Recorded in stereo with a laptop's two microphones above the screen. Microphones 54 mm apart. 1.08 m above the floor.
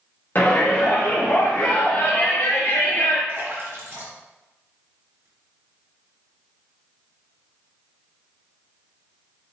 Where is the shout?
40° left (ahead or behind), 0.7 m.